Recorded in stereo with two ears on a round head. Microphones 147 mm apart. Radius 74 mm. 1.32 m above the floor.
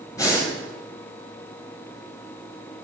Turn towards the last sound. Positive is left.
turn(degrees=20)  # may be behind; listen again after turning